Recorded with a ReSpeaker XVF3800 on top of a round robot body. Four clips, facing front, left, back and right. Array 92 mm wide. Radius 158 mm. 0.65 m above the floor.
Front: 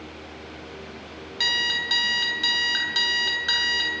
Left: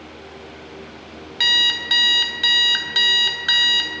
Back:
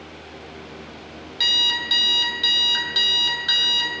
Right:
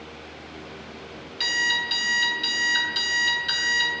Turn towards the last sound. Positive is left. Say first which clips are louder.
# left 2 dB, even
turn(degrees=80)